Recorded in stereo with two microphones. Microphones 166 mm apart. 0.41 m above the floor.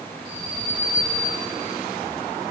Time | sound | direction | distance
0.2 | an alarm | 30° left (ahead or behind) | 6 m